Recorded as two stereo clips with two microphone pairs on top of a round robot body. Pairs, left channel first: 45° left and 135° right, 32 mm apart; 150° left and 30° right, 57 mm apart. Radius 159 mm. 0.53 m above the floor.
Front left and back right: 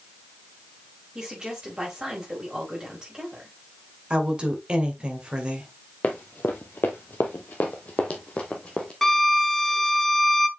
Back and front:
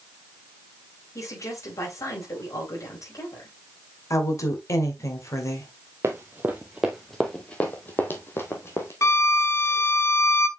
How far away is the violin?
About 1.1 m.